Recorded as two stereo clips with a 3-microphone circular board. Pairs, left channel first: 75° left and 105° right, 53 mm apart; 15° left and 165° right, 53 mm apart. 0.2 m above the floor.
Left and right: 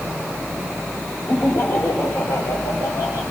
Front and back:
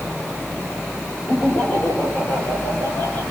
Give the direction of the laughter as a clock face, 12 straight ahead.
10 o'clock.